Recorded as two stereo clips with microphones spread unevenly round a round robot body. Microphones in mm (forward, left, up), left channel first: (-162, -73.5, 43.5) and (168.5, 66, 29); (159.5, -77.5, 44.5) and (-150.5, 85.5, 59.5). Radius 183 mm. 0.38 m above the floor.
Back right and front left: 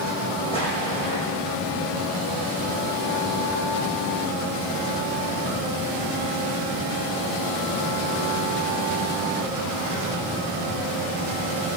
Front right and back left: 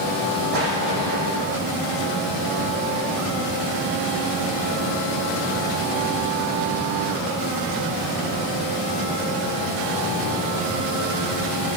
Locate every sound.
0.5 s an explosion: 130° left, 5.5 m